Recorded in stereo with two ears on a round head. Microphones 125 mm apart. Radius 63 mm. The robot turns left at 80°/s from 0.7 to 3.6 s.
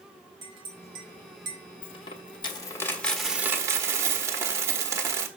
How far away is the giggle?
No giggle in this recording.